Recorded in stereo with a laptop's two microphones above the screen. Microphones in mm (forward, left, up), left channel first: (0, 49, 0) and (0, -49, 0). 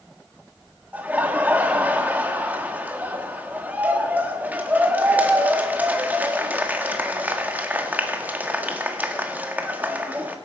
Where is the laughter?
15° right (ahead or behind), 1.8 m.